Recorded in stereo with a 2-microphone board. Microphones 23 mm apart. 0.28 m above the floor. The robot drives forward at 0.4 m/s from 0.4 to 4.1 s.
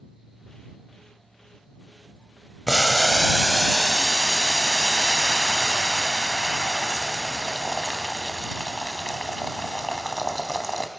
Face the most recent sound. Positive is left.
turn(degrees=15)  # may be behind; listen again after turning